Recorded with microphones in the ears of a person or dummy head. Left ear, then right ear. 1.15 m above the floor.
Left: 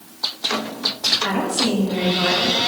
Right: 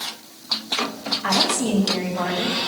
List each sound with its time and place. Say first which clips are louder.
1.2 s a woman speaking: right 1 dB; 20° right (ahead or behind), 2 m; by 2.7 s 15° right (ahead or behind), 3 m